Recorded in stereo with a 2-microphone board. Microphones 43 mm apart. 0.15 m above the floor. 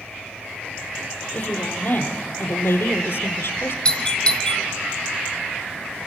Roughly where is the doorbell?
Left.